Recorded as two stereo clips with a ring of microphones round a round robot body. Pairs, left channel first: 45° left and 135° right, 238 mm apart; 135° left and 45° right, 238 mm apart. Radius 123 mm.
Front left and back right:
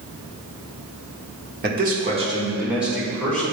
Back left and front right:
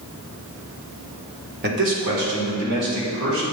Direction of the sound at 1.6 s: 90° right.